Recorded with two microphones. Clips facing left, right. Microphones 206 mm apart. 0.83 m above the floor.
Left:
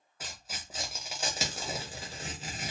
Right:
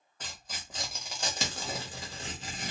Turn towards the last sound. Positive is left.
turn(degrees=5)  # may be behind; listen again after turning